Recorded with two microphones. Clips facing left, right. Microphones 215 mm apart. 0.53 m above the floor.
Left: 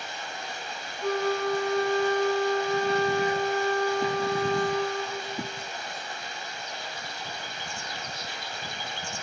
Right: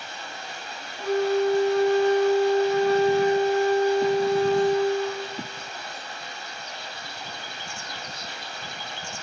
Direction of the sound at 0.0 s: 20° left (ahead or behind).